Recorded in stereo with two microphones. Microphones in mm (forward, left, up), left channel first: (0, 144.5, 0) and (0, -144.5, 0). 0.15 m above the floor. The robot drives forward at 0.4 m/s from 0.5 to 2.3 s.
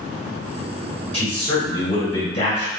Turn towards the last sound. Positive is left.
turn(degrees=20)  # may be behind; listen again after turning